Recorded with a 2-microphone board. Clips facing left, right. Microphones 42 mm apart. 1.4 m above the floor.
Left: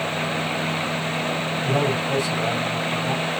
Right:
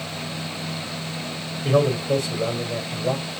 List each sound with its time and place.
1.6 s a man speaking: 60° right (ahead or behind), 4.5 m